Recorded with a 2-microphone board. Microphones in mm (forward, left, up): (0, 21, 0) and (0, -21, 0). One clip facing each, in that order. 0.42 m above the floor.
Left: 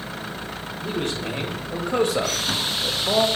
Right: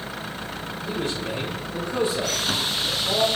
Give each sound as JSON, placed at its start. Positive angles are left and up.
{"t": 0.8, "sound": "a man speaking", "side_deg": 60, "distance_m": 2.5}